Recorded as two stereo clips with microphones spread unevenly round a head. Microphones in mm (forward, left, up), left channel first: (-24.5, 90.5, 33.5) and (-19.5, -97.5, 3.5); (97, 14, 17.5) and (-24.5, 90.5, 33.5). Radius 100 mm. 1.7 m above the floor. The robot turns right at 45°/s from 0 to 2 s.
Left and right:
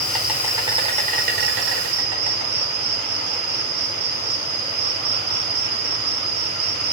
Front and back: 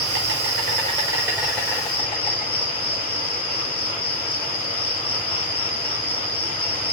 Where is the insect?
170° left, 4 m; by 6.9 s 100° right, 4 m.